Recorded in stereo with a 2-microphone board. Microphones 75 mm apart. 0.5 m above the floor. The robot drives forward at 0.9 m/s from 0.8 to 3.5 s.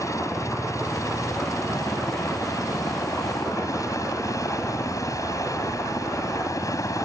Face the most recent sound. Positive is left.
turn(degrees=45)  # may be behind; listen again after turning